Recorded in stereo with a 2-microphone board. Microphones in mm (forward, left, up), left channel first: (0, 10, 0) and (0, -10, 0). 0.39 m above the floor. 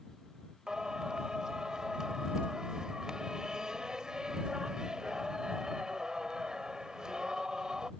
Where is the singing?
40° right (ahead or behind).